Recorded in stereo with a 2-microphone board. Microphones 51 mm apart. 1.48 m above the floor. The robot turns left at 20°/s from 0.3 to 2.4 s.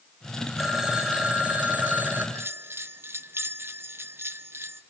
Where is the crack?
I don't hear a crack.